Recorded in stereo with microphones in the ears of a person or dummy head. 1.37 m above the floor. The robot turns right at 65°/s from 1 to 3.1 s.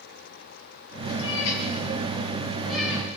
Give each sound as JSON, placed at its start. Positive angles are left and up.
{"t": 1.2, "sound": "a cat meowing", "side_deg": 70, "distance_m": 5.0}